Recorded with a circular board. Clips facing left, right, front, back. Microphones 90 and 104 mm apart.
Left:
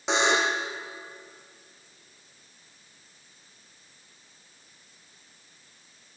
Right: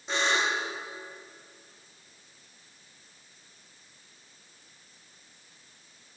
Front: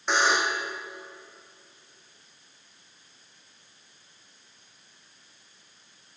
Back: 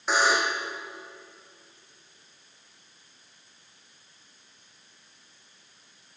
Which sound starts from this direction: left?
A buzzer, at 0.1 s.